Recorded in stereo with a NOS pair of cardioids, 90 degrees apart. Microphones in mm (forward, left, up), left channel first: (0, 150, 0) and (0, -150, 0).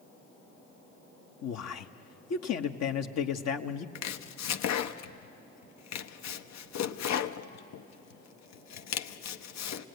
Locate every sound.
1.4 s a man speaking: 60° left, 1.2 m
4.0 s chopping: 65° left, 0.8 m